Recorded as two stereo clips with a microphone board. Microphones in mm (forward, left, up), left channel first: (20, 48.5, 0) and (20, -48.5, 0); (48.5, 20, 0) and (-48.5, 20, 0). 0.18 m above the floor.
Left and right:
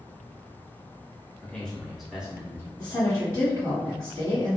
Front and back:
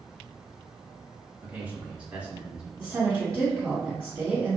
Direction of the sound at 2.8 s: 140° left.